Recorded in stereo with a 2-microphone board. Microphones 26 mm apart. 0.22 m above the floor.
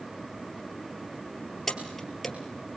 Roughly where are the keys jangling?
Centre.